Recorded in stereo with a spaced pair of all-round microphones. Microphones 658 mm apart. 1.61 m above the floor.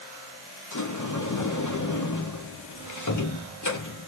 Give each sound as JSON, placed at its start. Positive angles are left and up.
{"t": 0.7, "sound": "a sliding door", "side_deg": 30, "distance_m": 0.6}